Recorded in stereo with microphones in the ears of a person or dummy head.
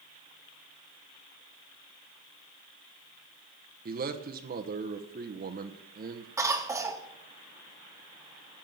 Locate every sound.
3.9 s a man speaking: 40° right (ahead or behind), 1.0 m
6.4 s a cough: 10° right (ahead or behind), 1.4 m